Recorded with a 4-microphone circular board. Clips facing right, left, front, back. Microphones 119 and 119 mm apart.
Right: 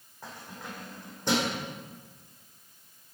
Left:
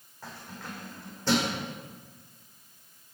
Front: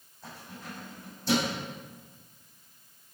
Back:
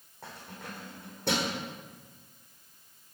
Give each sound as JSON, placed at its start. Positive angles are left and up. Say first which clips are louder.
{"t": 0.2, "sound": "keys jangling", "louder": "even, even", "azimuth_deg": -160, "distance_m": 3.5}